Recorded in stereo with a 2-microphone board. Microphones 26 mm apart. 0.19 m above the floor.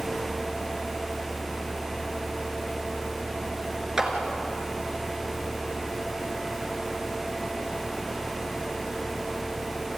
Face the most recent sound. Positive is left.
turn(degrees=-20)  # may be behind; listen again after turning